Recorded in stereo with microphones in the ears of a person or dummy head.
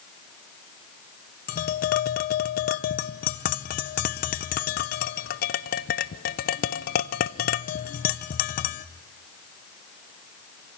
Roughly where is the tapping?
Left.